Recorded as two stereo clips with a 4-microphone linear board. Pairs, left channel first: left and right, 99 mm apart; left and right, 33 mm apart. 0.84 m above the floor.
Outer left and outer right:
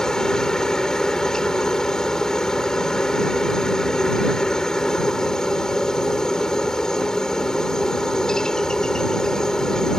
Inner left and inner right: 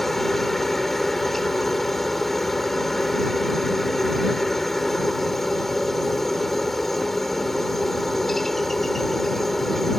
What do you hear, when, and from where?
0.0 s a helicopter: 5° left (ahead or behind)